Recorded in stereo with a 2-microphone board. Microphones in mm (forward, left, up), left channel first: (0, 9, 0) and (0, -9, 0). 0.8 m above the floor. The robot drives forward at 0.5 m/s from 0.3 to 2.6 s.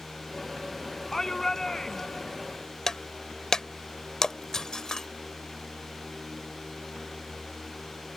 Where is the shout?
25° left (ahead or behind); by 2.3 s 30° left (ahead or behind).